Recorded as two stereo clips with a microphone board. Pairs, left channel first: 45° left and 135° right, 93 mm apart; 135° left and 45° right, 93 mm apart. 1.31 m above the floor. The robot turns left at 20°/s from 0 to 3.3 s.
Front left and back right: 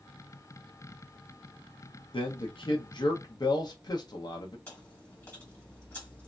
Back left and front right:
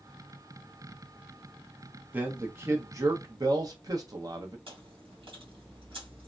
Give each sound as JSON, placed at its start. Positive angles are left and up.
{"t": 2.1, "sound": "a man speaking", "azimuth_deg": 25, "distance_m": 1.0}
{"t": 4.7, "sound": "chewing", "azimuth_deg": -25, "distance_m": 1.6}